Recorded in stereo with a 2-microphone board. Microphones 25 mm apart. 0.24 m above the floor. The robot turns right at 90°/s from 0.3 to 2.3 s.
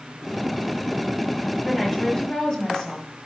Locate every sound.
1.6 s a woman speaking: 15° left (ahead or behind), 1.2 m; by 3.1 s 25° left (ahead or behind), 1.2 m